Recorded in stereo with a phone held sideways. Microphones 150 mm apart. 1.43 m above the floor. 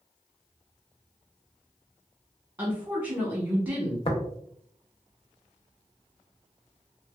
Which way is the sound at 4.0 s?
40° left (ahead or behind).